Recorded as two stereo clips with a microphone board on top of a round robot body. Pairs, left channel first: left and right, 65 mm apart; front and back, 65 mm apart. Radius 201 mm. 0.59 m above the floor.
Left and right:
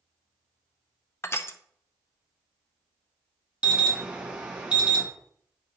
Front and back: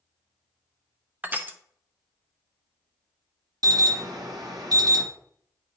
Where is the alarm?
160° right, 1.4 m.